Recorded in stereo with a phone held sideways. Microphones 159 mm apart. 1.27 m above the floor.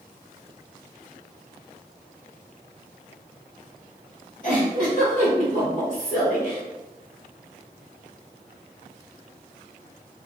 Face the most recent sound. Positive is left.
turn(degrees=55)  # may be behind; listen again after turning